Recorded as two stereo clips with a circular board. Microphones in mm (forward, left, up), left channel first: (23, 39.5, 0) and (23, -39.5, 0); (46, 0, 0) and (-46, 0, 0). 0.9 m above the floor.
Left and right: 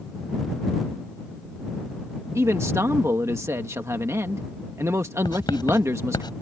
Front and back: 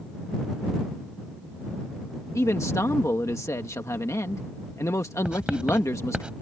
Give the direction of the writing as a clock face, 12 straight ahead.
9 o'clock.